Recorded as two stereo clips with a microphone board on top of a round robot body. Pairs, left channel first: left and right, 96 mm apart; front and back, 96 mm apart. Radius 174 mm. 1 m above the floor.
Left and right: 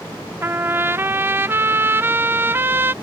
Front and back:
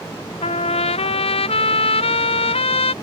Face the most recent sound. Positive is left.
turn(degrees=-20)